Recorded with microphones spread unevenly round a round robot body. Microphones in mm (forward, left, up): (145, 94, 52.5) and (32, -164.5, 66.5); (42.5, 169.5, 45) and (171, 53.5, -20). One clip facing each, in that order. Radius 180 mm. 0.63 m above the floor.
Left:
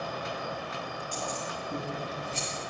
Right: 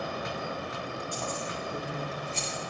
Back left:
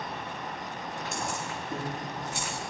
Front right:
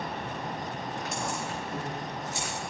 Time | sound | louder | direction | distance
1.1 | keys jangling | right 1 dB, even | 110° left | 7.5 m